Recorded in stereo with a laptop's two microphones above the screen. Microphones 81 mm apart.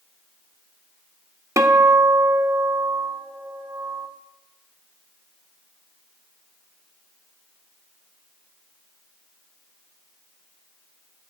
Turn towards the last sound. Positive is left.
turn(degrees=-40)  # may be behind; listen again after turning